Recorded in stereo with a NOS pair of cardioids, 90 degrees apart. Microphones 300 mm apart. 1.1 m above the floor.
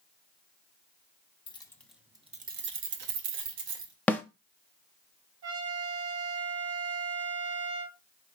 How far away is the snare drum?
About 0.7 m.